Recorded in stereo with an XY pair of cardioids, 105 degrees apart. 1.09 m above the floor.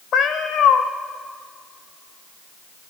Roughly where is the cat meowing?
Ahead left.